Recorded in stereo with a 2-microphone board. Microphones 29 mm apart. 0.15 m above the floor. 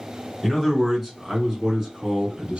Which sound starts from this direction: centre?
A man speaking, at 0.4 s.